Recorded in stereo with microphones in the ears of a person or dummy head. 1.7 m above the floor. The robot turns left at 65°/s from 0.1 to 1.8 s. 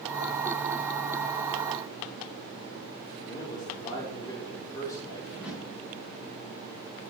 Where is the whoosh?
5° right (ahead or behind), 4 m.